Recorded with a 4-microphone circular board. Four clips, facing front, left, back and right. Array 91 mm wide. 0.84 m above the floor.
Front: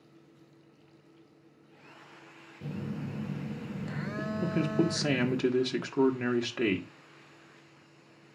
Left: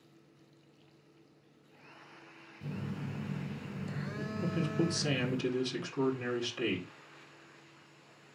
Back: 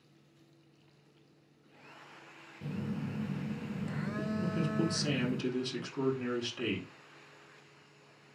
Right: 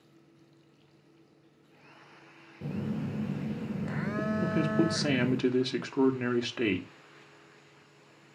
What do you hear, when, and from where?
2.6 s a phone buzzing: 75° right, 0.8 m
4.4 s a man speaking: 40° right, 1.6 m